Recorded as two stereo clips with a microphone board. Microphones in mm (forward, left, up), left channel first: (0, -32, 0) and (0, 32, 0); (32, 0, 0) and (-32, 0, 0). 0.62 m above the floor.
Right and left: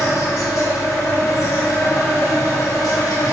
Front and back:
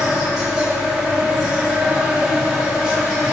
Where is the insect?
100° right, 1.0 m.